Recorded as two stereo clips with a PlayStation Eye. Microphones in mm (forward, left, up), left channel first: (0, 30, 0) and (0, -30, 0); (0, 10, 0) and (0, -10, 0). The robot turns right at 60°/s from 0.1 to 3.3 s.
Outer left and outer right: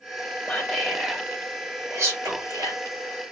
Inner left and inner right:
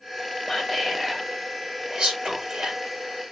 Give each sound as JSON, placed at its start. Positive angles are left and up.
{"t": 0.5, "sound": "whispering", "side_deg": 40, "distance_m": 1.9}